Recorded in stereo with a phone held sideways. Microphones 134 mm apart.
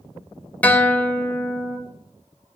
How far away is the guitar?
About 0.6 m.